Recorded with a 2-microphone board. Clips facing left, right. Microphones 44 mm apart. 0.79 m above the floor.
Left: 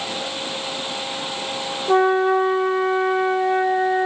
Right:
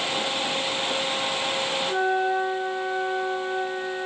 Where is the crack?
No crack in this recording.